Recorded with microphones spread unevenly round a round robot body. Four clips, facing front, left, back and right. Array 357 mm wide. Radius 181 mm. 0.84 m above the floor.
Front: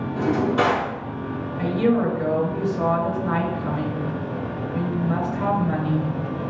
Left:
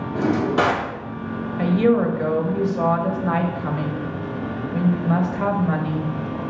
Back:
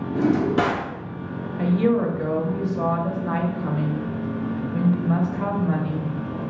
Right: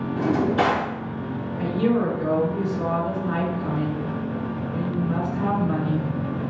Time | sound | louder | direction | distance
0.1 | a drawer | left 2 dB, back 1 dB | 155° left | 0.7 m
1.6 | a woman speaking | left 4 dB, even | 80° left | 1.1 m